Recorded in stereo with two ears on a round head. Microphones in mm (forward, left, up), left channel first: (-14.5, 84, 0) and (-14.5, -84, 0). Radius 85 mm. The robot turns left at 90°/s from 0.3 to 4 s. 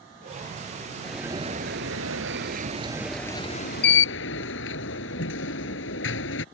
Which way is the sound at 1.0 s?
10° left.